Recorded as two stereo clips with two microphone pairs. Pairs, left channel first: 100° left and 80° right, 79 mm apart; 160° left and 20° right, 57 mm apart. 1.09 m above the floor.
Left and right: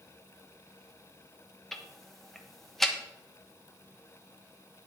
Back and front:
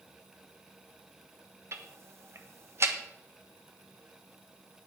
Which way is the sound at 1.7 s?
15° left.